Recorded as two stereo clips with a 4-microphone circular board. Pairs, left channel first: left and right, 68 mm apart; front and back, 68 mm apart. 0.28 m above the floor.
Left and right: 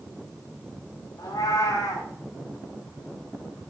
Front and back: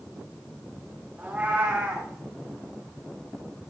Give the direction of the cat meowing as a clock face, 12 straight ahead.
8 o'clock.